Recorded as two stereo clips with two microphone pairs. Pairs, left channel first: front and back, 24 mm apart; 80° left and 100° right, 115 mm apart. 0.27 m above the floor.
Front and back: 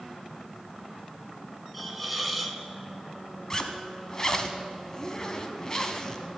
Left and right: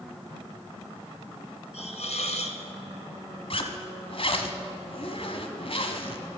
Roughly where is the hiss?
Left.